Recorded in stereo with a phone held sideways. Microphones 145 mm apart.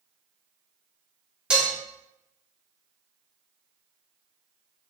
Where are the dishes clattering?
5° right (ahead or behind), 0.6 m.